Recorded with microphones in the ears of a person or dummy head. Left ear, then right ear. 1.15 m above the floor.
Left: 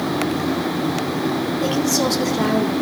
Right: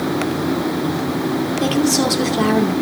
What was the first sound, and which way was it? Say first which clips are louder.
A woman speaking: right 2 dB; 15° right (ahead or behind).